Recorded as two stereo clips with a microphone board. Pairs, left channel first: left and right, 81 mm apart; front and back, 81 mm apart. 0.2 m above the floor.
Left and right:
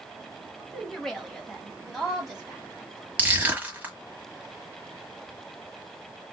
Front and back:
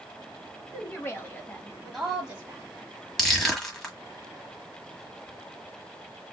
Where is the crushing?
75° right, 1.4 m.